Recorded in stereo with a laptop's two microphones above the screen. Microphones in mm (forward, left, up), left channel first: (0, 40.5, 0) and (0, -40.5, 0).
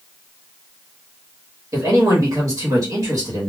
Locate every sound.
1.7 s a man speaking: 45° right (ahead or behind), 1.1 m